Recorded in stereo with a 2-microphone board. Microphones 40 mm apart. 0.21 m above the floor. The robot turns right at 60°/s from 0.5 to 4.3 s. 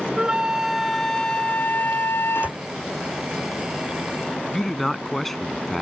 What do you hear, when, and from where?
0.2 s a flute: 25° right; by 2.6 s 105° left
2.4 s a door slam: 30° right (ahead or behind); by 2.6 s 45° right (ahead or behind)
4.5 s a man speaking: 5° left (ahead or behind)